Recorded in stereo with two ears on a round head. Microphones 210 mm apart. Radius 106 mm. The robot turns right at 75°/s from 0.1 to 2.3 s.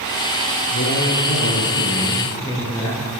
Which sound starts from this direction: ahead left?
A man speaking, at 0.7 s.